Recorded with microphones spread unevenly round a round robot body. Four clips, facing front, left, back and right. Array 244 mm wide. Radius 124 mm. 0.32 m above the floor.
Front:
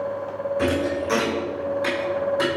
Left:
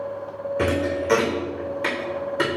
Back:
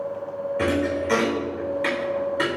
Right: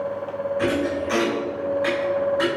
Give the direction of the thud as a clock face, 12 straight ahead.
9 o'clock.